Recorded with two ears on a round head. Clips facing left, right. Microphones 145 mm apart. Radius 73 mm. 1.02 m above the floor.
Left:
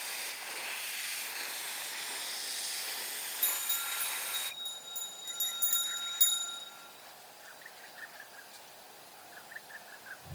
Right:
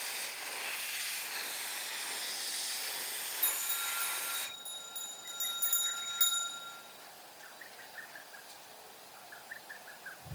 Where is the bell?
15° left (ahead or behind), 3 m.